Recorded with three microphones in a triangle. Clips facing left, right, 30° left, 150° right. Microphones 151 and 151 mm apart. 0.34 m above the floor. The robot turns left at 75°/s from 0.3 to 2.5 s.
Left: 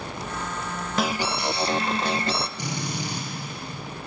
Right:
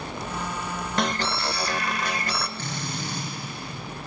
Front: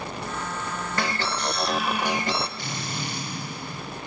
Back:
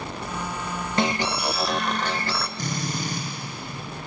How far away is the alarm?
About 0.5 m.